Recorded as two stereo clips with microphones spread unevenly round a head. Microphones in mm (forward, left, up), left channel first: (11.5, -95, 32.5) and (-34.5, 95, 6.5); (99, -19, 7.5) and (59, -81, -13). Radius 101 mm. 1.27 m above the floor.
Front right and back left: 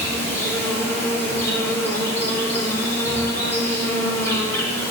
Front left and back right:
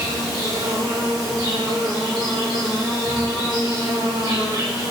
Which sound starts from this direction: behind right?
An insect, at 0.0 s.